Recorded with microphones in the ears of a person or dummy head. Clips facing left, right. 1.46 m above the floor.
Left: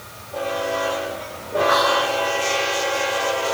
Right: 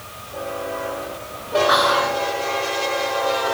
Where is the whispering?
40° right (ahead or behind), 0.7 m.